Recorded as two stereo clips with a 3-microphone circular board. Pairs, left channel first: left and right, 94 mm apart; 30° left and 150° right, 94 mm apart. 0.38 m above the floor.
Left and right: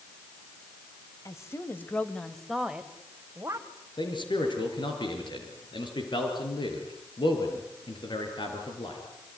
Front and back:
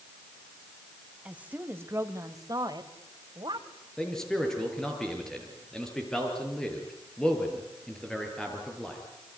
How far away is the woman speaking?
About 2 m.